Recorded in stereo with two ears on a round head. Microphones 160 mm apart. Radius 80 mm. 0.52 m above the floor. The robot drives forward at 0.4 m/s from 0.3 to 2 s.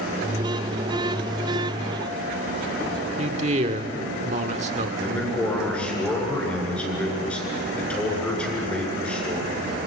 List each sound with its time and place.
3.2 s a man speaking: 40° right (ahead or behind), 1.5 m
5.0 s a man speaking: 5° left (ahead or behind), 7.5 m